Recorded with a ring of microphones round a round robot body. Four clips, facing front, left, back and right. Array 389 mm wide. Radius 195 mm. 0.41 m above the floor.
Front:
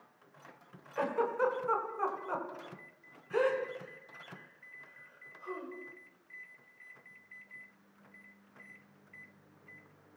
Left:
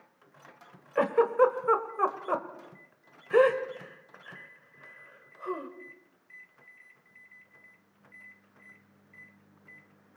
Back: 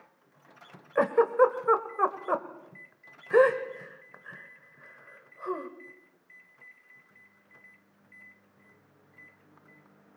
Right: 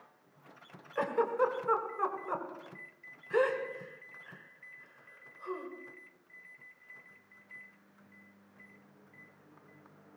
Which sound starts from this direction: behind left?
A giggle, at 0.9 s.